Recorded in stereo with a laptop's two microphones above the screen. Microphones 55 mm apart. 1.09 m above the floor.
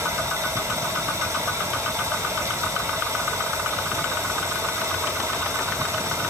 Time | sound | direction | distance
0.0 | running water | 70° right (ahead or behind) | 2 m